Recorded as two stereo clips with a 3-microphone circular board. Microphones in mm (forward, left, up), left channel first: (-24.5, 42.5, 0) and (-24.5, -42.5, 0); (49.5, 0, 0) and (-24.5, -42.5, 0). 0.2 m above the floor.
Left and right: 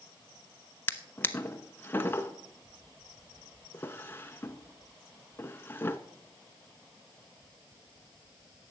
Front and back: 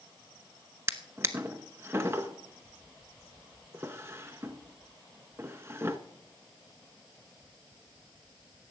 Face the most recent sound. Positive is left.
turn(degrees=155)